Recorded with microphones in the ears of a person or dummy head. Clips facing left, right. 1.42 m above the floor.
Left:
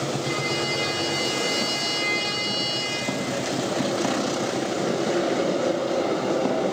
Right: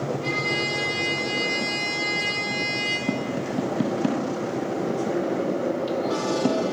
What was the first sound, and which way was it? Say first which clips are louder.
A trumpet: left 1 dB; 15° right (ahead or behind).